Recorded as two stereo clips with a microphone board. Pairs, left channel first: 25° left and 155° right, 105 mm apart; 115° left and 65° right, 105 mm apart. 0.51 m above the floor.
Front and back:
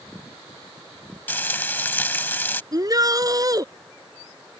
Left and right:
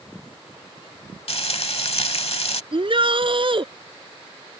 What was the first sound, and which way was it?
Frying, 95° left.